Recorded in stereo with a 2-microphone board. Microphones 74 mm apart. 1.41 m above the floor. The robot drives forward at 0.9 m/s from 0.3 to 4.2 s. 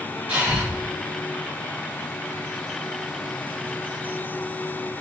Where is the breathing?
20° right (ahead or behind), 1.9 m.